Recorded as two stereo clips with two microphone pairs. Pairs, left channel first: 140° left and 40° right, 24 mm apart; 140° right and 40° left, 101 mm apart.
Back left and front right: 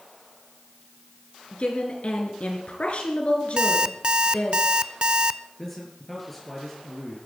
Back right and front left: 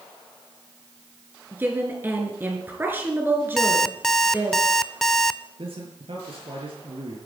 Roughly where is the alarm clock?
Ahead right.